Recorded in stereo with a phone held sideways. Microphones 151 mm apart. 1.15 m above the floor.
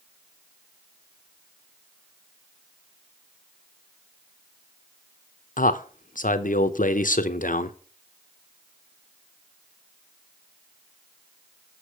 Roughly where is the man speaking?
Left.